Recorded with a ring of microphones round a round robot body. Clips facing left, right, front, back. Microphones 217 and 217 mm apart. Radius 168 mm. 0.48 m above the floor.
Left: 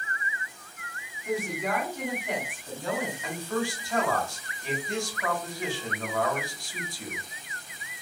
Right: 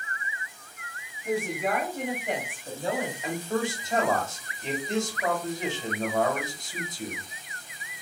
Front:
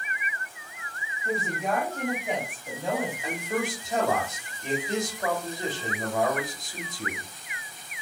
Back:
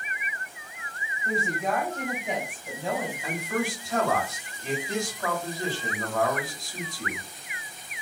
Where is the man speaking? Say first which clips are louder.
Right 4 dB, even; 45° right, 1.2 m.